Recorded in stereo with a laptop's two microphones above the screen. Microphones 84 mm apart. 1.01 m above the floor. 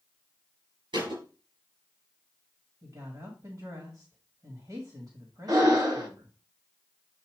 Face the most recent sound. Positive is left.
turn(degrees=-50)  # may be behind; listen again after turning